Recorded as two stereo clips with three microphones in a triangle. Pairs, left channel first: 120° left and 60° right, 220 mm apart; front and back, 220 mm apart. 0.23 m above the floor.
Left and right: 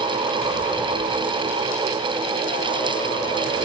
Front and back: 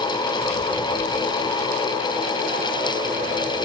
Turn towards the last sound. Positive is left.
No sound to turn to.